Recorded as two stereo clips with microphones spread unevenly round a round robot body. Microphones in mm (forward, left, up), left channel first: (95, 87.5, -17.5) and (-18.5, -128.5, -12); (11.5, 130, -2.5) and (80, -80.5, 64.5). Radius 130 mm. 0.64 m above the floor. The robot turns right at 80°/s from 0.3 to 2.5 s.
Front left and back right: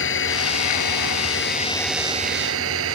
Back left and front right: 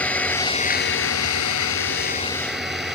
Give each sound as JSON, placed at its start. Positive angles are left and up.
{"t": 0.0, "sound": "an engine running", "azimuth_deg": 25}